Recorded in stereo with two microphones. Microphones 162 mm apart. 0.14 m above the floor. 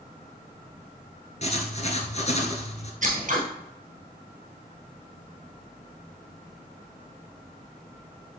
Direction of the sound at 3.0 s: 55° right (ahead or behind).